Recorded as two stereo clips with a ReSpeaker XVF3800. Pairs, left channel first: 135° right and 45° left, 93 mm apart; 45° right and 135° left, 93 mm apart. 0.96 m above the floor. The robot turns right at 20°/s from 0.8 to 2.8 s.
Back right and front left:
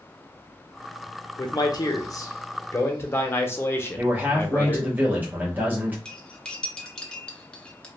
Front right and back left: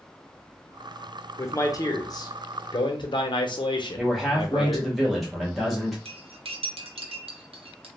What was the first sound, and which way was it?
A man speaking, 100° right.